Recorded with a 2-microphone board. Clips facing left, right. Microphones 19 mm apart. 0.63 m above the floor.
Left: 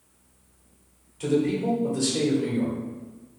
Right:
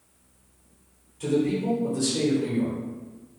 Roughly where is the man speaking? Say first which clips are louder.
Left 1 dB; centre.